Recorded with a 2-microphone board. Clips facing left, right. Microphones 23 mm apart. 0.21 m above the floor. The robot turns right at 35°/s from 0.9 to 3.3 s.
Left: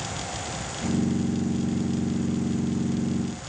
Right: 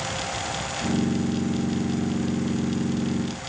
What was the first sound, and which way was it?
Only background noise.